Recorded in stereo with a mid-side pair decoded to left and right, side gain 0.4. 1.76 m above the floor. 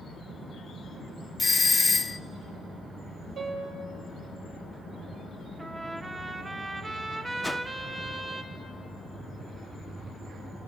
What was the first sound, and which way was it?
A doorbell, 25° left.